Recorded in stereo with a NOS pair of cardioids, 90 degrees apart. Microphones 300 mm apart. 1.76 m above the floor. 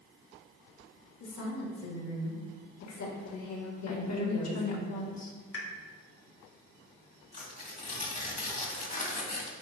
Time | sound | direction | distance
1.2 | a woman speaking | 70° left | 3 m
3.9 | a woman speaking | 60° left | 2 m
5.5 | a pop | 50° left | 1.8 m
7.3 | tearing paper | 25° left | 2.0 m